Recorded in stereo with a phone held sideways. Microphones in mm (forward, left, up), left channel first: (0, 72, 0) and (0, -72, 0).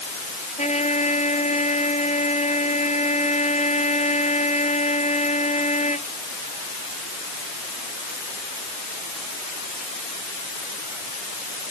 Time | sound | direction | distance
0.6 | a trumpet | 50° left (ahead or behind) | ?